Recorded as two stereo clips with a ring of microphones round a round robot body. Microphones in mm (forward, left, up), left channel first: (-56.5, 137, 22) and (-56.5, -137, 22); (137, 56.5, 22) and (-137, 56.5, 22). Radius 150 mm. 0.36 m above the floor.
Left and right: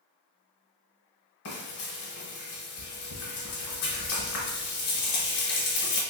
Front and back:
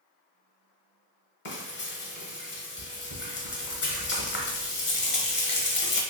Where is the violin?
No violin in this recording.